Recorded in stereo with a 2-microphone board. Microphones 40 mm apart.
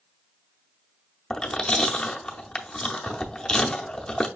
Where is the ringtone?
I don't hear a ringtone.